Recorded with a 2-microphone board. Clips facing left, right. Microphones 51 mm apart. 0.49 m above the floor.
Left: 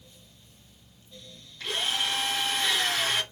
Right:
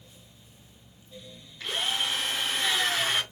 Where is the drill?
5° right (ahead or behind), 1.4 m.